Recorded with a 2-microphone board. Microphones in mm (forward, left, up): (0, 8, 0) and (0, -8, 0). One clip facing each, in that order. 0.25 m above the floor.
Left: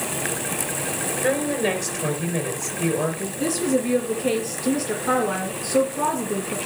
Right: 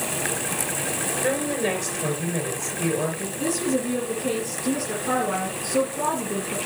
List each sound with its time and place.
1.2 s a woman speaking: 5° left (ahead or behind), 3.5 m
3.4 s a woman speaking: 25° left (ahead or behind), 3.5 m